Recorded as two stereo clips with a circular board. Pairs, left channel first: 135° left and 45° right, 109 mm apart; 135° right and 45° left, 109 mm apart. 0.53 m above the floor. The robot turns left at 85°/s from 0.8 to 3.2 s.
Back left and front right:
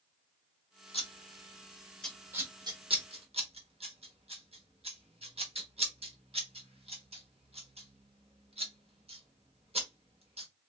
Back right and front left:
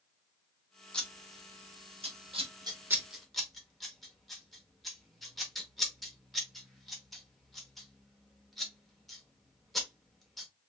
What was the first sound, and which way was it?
Scissors, 145° left.